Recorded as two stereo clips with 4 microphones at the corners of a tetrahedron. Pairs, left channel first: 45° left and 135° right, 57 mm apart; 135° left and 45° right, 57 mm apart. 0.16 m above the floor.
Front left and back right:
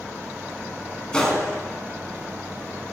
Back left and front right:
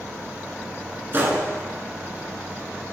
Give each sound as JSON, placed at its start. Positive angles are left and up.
{"t": 1.1, "sound": "a gunshot", "azimuth_deg": -25, "distance_m": 1.3}